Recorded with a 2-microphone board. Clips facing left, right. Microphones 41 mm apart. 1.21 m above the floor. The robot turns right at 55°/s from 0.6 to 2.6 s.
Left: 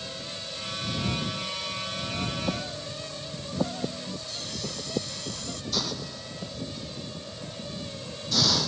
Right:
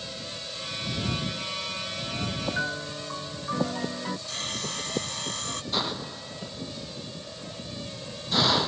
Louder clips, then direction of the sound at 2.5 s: Right 5 dB; 65° right (ahead or behind).